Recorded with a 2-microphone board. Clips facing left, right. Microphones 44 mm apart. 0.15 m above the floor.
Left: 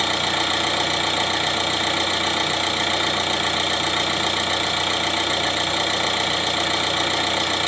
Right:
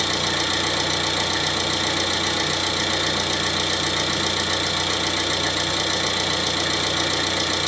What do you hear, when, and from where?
0.0 s an engine running: 25° left (ahead or behind), 1.0 m